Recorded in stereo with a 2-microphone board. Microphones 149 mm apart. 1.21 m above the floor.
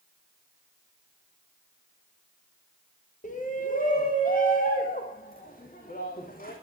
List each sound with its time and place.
3.2 s a shout: 55° left (ahead or behind), 1.3 m; by 6.5 s 65° left (ahead or behind), 3.5 m